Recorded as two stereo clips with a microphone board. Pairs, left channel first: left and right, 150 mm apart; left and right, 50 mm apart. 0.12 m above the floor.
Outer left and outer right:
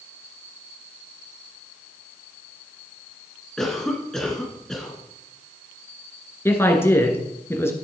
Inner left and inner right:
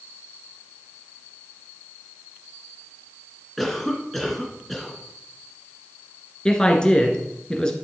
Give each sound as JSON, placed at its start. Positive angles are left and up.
{"t": 3.6, "sound": "a cough", "side_deg": 5, "distance_m": 1.8}
{"t": 6.5, "sound": "a man speaking", "side_deg": 15, "distance_m": 1.9}